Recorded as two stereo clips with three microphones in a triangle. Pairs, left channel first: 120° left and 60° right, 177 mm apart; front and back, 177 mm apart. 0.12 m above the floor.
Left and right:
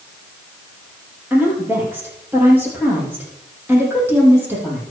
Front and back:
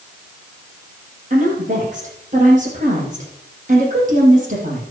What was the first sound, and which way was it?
A woman speaking, 140° right.